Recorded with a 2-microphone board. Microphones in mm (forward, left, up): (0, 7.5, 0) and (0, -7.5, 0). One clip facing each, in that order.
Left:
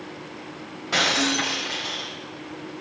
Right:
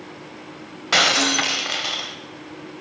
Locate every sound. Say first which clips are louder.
0.9 s breaking glass: right 4 dB; 45° right (ahead or behind), 1.2 m